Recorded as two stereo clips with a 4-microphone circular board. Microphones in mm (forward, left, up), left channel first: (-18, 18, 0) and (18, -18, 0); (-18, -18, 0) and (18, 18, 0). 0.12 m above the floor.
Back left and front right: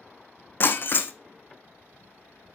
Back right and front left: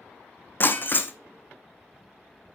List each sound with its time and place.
0.6 s breaking glass: straight behind, 0.7 m